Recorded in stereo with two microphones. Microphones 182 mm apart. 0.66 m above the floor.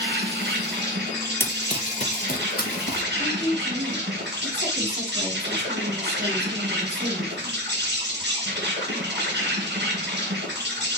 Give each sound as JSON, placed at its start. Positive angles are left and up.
{"t": 0.0, "sound": "an insect", "side_deg": -80, "distance_m": 2.5}
{"t": 1.4, "sound": "running footsteps", "side_deg": 15, "distance_m": 0.6}
{"t": 3.2, "sound": "a woman speaking", "side_deg": -65, "distance_m": 4.0}